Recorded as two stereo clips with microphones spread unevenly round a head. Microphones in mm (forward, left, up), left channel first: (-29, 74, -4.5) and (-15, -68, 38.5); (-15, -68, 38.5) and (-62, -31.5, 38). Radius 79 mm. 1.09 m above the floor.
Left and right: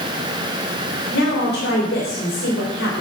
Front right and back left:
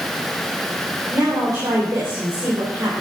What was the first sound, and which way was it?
A woman speaking, 90° left.